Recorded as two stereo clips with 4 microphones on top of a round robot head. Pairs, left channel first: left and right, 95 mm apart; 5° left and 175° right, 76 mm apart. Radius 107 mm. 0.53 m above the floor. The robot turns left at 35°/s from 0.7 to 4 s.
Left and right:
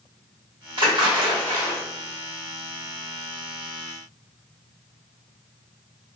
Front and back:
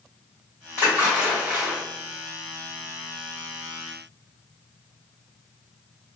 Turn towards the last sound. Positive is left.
turn(degrees=-175)